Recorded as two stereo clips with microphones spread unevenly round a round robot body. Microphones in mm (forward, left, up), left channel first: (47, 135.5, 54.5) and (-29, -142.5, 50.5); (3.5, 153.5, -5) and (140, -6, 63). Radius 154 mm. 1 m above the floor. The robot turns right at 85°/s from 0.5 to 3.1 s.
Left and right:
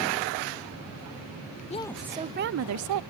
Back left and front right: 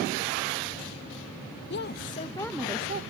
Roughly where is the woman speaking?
Behind left.